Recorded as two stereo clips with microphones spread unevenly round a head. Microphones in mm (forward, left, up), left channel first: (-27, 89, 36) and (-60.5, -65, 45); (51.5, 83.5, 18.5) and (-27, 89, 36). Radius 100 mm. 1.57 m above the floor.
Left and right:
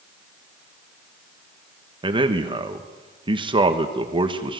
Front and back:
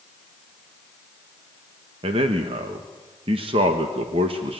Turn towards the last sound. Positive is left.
turn(degrees=-160)